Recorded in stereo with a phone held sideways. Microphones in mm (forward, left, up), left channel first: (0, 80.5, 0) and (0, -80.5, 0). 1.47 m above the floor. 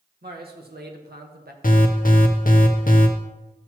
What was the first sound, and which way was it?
A man speaking, 75° right (ahead or behind).